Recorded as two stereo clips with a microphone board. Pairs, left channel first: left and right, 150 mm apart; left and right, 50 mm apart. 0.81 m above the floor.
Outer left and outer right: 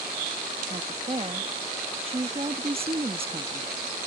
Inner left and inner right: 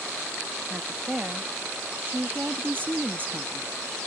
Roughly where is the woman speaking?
Right.